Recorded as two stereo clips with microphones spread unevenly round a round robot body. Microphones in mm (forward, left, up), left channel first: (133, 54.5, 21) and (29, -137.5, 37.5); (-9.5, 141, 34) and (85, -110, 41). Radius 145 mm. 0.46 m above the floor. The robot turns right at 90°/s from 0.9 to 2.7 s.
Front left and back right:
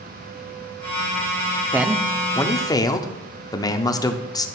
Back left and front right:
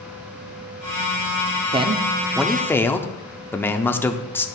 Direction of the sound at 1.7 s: 40° right.